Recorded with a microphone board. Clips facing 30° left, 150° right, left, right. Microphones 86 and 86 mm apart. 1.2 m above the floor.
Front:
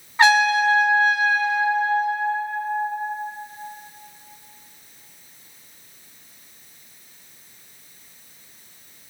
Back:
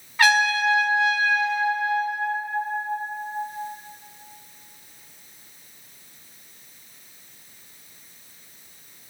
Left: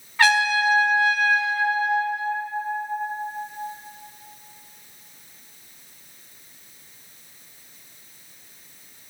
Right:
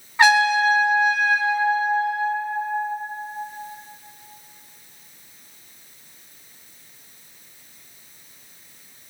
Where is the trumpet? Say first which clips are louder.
Front 3 dB, right 3 dB; 25° right, 1.1 m.